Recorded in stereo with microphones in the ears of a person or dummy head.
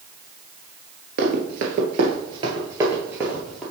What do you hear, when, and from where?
1.2 s running footsteps: 45° right (ahead or behind), 1.5 m; by 3.6 s centre (ahead or behind), 1.9 m